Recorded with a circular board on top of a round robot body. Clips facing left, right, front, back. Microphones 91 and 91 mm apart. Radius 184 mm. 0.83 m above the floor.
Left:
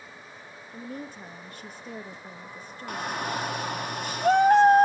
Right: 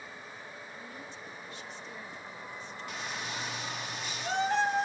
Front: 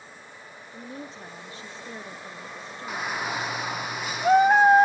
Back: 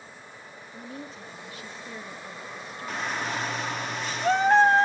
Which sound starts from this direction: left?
A shout, at 2.9 s.